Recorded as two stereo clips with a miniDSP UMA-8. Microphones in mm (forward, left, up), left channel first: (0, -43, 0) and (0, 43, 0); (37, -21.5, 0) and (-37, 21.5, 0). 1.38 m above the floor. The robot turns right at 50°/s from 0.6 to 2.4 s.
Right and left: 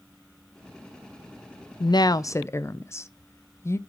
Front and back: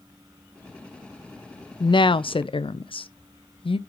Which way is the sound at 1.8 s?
60° right.